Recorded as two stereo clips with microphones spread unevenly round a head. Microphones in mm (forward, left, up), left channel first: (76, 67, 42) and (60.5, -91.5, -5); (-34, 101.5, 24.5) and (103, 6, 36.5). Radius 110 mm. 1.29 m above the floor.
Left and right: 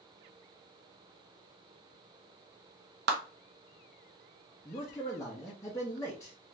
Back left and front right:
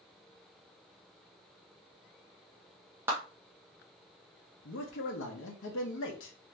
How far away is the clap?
About 0.7 m.